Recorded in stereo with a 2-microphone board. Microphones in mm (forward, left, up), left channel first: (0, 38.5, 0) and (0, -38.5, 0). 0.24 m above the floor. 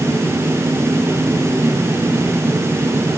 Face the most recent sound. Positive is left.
No sound to turn to.